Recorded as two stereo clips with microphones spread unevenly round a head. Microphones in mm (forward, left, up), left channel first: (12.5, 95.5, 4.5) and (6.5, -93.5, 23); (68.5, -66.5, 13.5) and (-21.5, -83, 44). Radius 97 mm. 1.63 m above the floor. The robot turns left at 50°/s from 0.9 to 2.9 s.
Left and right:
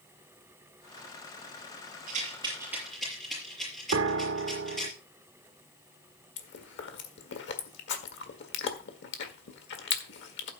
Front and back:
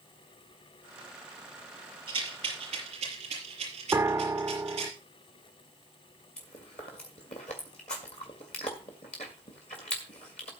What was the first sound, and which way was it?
A rattle, 140° right.